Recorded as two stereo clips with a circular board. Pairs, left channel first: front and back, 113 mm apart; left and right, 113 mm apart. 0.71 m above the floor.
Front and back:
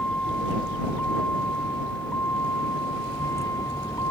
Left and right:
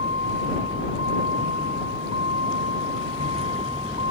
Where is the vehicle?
80° right; by 4.1 s 60° right.